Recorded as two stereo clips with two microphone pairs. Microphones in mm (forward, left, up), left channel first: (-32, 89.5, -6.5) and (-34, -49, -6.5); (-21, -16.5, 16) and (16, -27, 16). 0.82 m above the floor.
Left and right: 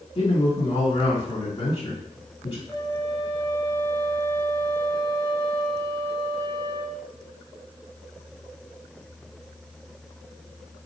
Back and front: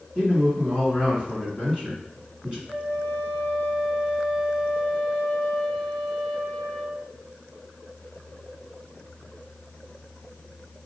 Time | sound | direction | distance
0.1 | a man speaking | 45° left | 1.7 m
2.7 | a flute | 25° left | 1.7 m